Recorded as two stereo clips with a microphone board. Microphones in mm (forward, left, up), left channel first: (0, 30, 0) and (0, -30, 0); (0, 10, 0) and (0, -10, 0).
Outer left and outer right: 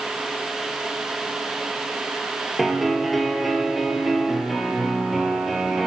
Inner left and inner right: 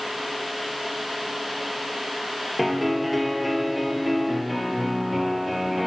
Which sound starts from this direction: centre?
A piano, at 2.6 s.